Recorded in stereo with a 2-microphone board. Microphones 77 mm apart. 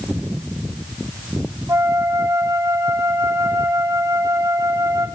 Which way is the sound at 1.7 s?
40° right (ahead or behind).